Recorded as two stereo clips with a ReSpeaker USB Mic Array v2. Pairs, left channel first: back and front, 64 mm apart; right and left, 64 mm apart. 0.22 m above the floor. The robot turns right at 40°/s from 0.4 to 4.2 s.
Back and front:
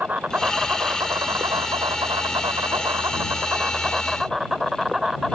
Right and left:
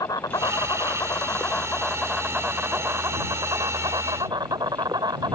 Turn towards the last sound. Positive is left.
turn(degrees=85)